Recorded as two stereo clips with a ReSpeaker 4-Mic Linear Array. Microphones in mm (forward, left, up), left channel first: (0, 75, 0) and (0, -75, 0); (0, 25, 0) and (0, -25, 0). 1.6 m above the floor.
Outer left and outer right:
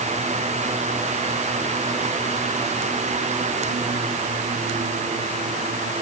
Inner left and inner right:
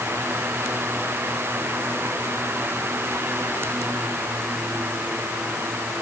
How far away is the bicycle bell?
I don't hear a bicycle bell.